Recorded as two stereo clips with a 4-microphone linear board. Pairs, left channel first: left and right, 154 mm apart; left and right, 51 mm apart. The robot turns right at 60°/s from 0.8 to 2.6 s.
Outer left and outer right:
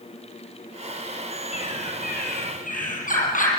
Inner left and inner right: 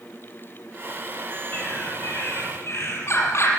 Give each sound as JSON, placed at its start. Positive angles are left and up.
{"t": 1.5, "sound": "a bird", "azimuth_deg": 50, "distance_m": 5.5}